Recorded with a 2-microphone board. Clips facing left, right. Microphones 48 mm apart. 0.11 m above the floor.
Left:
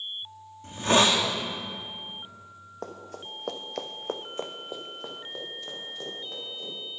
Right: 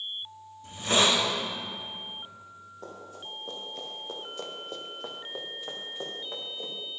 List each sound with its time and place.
0.6 s a hiss: 45° left (ahead or behind), 1.9 m
2.8 s running footsteps: 70° left (ahead or behind), 2 m; by 6.7 s 25° right (ahead or behind), 3.5 m